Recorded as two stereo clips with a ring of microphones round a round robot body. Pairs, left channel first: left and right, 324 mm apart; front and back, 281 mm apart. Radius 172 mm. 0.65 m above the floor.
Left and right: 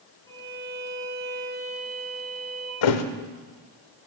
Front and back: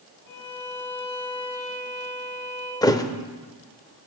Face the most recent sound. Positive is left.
turn(degrees=80)